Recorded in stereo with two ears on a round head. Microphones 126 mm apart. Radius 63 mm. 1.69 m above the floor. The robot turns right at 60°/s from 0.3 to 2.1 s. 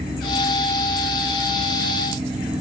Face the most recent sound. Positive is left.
No sound to turn to.